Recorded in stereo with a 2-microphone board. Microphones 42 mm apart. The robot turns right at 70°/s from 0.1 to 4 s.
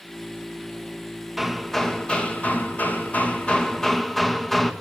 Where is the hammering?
15° right, 1.0 m; by 4.7 s 170° left, 1.0 m.